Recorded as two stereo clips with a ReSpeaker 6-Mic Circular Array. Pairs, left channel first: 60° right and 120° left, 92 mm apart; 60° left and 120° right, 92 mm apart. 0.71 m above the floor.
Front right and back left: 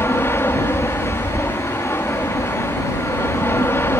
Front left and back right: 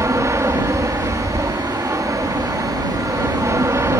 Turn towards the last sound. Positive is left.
turn(degrees=-95)